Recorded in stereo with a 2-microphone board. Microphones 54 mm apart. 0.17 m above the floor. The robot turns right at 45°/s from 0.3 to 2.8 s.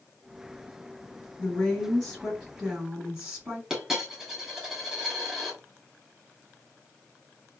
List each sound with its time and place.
1.4 s a woman speaking: 145° left, 2.5 m; by 3.6 s 155° right, 2.5 m
3.7 s a dropped coin: 10° right (ahead or behind), 1.9 m